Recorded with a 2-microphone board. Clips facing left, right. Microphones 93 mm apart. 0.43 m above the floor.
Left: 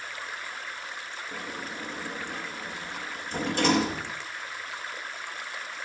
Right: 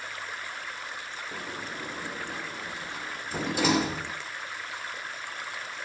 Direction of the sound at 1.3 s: 5° right (ahead or behind).